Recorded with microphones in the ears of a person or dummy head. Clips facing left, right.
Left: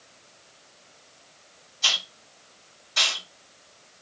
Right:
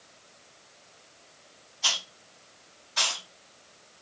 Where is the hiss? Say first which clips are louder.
Left 2 dB; 35° left (ahead or behind), 2 m.